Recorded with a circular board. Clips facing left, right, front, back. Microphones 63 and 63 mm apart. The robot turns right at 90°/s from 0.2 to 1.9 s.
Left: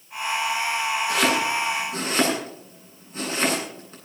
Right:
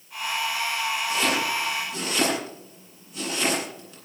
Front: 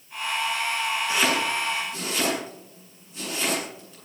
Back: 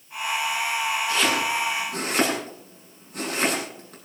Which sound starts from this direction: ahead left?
Chopping, at 1.1 s.